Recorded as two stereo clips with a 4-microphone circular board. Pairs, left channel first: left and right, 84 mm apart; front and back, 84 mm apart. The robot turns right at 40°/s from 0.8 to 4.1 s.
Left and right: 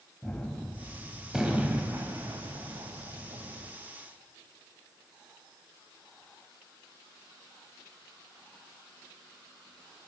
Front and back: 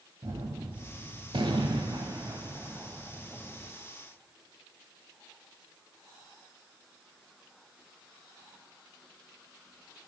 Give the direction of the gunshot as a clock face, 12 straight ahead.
7 o'clock.